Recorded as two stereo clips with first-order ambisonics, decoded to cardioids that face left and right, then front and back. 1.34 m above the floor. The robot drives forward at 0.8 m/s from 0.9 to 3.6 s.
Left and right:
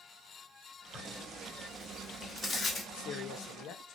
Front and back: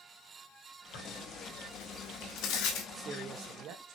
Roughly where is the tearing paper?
Ahead.